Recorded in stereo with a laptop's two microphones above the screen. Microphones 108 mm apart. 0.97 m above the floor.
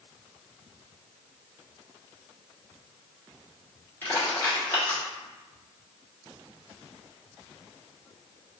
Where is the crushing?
20° left (ahead or behind), 1.4 m.